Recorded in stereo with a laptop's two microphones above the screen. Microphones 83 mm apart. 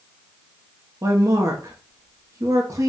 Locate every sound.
1.0 s a woman speaking: 40° right (ahead or behind), 1.0 m